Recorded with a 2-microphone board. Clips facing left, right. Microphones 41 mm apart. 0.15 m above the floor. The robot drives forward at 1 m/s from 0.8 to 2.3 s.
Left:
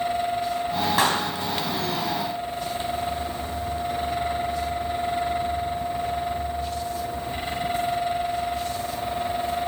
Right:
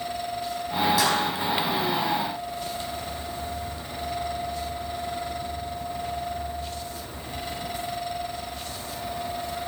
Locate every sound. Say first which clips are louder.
1.0 s a clap: left 1 dB; 45° left (ahead or behind), 4 m